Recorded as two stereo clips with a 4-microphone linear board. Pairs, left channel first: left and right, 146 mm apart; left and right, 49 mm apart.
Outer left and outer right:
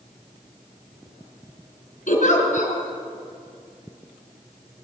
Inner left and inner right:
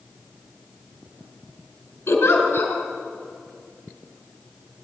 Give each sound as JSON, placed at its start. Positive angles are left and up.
{"t": 2.1, "sound": "a giggle", "side_deg": 60, "distance_m": 3.5}